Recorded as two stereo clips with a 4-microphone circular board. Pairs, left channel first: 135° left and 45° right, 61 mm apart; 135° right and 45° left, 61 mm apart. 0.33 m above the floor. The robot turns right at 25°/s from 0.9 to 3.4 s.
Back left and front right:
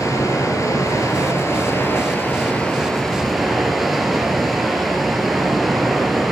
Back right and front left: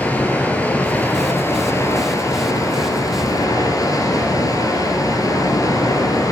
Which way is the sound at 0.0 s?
160° left.